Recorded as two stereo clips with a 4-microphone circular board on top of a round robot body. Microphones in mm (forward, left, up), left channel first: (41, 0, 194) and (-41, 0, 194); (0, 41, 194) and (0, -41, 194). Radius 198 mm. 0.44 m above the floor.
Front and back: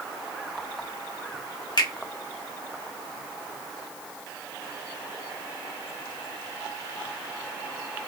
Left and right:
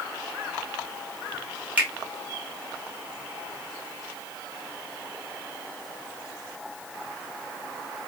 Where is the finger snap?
20° right, 1.7 m.